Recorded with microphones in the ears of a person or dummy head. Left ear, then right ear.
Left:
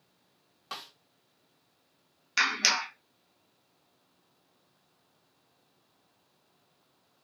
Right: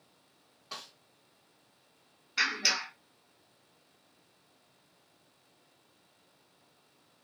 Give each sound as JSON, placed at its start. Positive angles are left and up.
{"t": 0.7, "sound": "a snare drum", "side_deg": 55, "distance_m": 1.1}
{"t": 2.4, "sound": "a clap", "side_deg": 70, "distance_m": 1.2}